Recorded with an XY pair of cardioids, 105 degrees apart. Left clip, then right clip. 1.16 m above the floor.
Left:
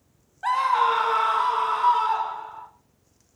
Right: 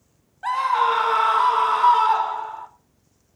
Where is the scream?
10° left, 0.8 m; by 2.7 s 40° right, 2 m.